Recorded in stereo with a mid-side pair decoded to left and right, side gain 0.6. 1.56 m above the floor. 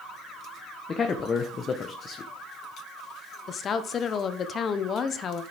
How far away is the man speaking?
About 1.1 m.